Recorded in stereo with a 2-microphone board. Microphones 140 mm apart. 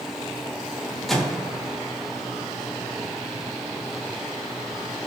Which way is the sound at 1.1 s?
Centre (ahead or behind).